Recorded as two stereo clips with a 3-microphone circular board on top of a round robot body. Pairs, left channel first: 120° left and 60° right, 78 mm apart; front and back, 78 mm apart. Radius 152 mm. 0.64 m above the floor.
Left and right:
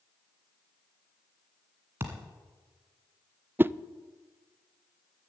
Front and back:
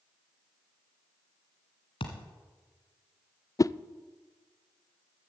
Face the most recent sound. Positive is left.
turn(degrees=-5)